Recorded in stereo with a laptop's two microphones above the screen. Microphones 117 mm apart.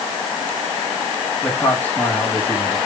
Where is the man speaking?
15° left (ahead or behind), 6.5 m.